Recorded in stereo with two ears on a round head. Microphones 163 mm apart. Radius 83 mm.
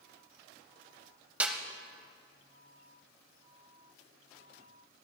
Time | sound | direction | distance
1.4 | a snare drum | 10° right (ahead or behind) | 0.9 m